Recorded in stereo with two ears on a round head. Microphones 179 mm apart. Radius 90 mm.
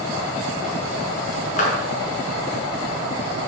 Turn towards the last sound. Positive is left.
turn(degrees=40)  # may be behind; listen again after turning